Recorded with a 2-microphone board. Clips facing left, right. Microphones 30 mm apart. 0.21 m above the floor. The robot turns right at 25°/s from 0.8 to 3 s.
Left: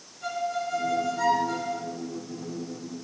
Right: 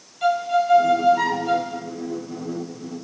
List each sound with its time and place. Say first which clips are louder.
0.2 s a violin: right 10 dB; 80° right, 1.0 m; by 1.8 s 55° right (ahead or behind), 1.0 m